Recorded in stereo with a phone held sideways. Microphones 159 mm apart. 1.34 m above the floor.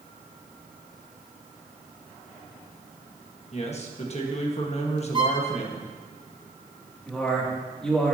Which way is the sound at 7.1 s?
5° left (ahead or behind).